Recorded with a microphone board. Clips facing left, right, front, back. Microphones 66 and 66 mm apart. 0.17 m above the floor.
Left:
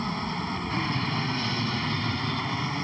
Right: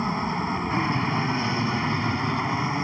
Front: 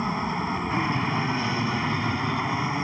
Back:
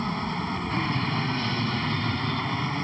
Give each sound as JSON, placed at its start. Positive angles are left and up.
{"t": 0.0, "sound": "an aircraft", "azimuth_deg": -55}